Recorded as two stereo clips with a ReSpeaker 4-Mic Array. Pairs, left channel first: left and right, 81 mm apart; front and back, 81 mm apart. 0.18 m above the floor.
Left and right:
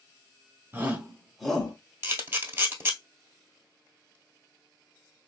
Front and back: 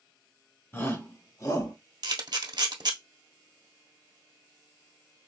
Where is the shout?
40° right, 1.6 m; by 1.7 s 15° left, 1.9 m.